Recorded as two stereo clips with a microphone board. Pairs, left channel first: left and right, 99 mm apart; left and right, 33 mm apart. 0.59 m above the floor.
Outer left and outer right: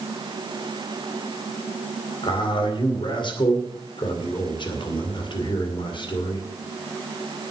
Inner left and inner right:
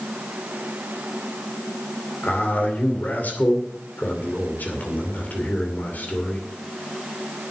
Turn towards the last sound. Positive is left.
turn(degrees=55)  # may be behind; listen again after turning